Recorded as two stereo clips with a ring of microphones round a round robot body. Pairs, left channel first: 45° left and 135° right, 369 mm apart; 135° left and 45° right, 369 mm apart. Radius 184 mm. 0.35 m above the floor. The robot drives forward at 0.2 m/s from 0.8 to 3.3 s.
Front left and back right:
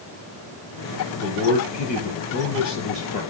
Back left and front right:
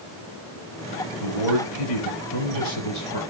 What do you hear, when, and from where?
1.2 s a man speaking: 115° left, 7 m